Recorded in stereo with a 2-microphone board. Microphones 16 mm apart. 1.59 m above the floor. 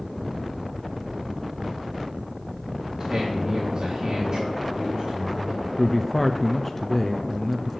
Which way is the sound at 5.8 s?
10° left (ahead or behind).